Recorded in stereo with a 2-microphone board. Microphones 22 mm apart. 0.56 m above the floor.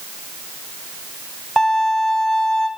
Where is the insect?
I don't hear an insect.